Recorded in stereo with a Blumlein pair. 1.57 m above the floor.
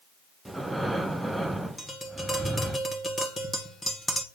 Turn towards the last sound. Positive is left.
turn(degrees=5)